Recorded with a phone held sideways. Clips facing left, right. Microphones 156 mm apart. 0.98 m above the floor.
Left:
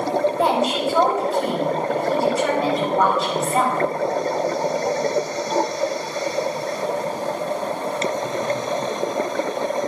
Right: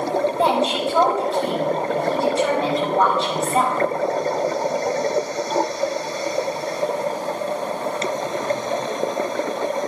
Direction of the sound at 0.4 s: 5° left (ahead or behind).